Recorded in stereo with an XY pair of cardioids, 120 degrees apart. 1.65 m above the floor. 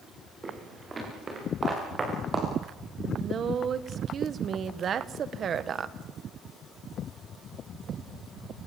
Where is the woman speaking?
45° right, 1.5 m.